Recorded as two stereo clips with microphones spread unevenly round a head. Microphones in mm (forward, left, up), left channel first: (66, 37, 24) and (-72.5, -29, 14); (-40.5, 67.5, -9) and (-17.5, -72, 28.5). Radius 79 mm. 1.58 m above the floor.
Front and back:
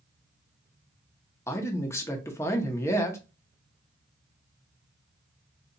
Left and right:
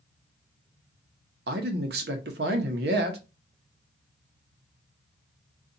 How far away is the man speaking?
About 0.8 m.